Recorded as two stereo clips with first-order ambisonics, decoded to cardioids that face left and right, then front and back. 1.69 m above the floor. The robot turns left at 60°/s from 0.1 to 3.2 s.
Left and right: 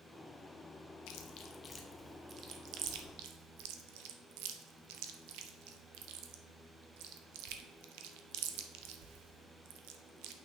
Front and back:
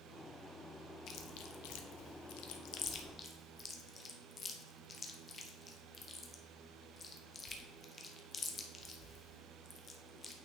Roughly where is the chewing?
Ahead left.